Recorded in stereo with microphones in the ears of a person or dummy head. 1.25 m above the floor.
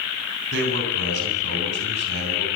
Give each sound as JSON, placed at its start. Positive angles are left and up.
{"t": 0.5, "sound": "a man speaking", "side_deg": -70, "distance_m": 10.0}